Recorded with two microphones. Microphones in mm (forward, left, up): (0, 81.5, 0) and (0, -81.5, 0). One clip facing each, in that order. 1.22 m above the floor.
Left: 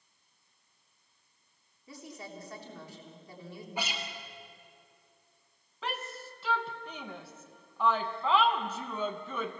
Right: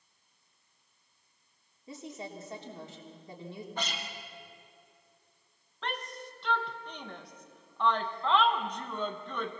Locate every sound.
1.9 s a woman speaking: 20° right (ahead or behind), 3 m
3.8 s a guitar: 10° left (ahead or behind), 2 m
5.8 s a shout: 5° left (ahead or behind), 1.5 m